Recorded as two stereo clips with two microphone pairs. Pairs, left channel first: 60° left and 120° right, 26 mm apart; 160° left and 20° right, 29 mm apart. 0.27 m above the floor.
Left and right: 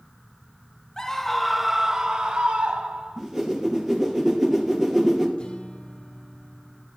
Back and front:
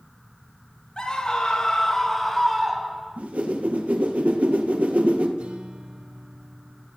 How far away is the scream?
About 1.1 m.